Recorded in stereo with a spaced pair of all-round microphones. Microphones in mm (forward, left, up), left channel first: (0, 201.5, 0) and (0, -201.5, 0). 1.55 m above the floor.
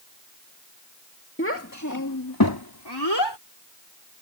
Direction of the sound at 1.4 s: 30° left (ahead or behind).